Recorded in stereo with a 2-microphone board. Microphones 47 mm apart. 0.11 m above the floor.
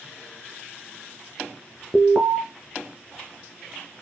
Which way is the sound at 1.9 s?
25° right (ahead or behind).